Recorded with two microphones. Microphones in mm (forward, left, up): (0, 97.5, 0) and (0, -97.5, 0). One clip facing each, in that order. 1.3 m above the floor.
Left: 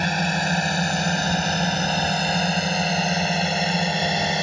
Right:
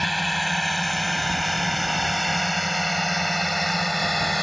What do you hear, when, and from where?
0.0 s a drone: 45° left (ahead or behind); by 4.4 s 25° left (ahead or behind)